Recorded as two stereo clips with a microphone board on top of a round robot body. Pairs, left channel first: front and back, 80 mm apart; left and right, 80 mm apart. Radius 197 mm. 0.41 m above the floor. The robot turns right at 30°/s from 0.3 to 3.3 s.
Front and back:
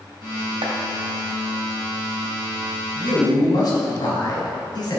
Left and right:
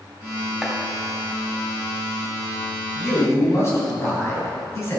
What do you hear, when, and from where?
0.6 s chopping: 175° right, 1.9 m; by 0.8 s 170° right, 1.9 m
3.0 s a man speaking: 25° left, 3.5 m; by 5.0 s 35° left, 3.5 m